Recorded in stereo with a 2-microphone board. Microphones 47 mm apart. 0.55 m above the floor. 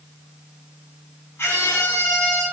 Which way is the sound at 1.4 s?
70° left (ahead or behind).